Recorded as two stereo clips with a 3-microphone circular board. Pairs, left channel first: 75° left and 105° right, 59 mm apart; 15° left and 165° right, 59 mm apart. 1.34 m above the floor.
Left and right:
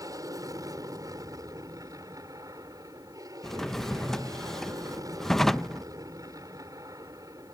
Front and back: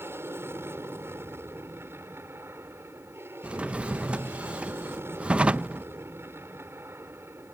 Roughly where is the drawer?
Behind left.